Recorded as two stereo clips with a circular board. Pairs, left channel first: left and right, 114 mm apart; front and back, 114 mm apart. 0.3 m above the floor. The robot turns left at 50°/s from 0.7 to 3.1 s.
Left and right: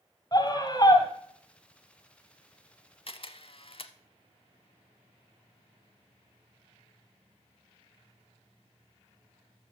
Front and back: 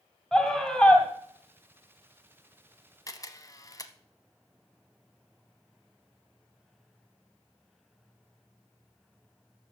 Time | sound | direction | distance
0.3 | a scream | 85° left | 1.7 m
3.1 | a camera shutter | 60° left | 0.6 m